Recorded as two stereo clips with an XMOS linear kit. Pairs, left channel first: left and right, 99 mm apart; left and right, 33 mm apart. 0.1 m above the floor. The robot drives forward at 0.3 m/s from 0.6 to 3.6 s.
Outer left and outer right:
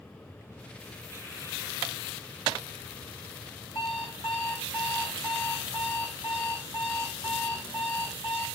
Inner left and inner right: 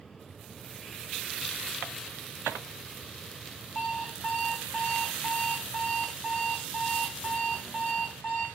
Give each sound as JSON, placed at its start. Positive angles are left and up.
{"t": 3.8, "sound": "an alarm clock", "side_deg": 80, "distance_m": 2.5}